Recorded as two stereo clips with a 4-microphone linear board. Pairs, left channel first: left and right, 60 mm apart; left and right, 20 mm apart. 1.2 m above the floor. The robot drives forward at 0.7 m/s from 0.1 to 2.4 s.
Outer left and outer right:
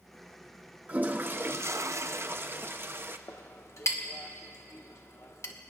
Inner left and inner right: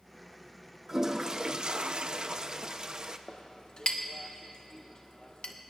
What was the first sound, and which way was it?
A toilet flushing, 30° right (ahead or behind).